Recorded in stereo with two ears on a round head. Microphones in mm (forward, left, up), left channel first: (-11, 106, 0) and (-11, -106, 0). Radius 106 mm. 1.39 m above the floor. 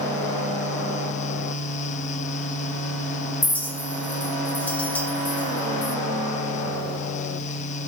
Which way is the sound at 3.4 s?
5° left (ahead or behind).